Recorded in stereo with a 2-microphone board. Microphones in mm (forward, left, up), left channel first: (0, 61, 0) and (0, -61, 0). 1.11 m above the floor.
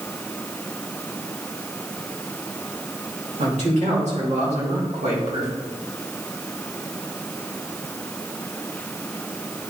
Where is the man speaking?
70° right (ahead or behind), 3 m; by 5.5 s 60° right (ahead or behind), 1.8 m.